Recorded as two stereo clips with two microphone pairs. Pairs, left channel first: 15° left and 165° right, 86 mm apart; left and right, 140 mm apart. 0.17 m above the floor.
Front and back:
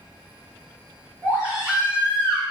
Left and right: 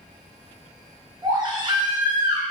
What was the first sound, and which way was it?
A baby crying, 110° right.